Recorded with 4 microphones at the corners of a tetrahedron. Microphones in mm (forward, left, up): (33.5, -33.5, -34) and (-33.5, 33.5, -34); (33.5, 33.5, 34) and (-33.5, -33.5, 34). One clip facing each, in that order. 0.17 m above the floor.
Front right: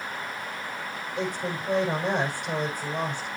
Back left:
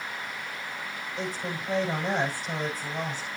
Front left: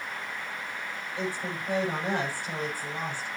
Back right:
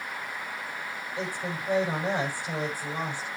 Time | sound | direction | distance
1.2 | a woman speaking | 60° right | 6 m